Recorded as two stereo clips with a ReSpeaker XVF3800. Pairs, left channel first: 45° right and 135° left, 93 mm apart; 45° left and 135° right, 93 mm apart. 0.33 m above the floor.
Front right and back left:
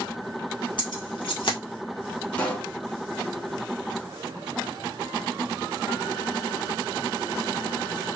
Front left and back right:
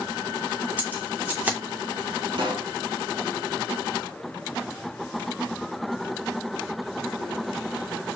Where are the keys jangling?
60° right, 1.9 m.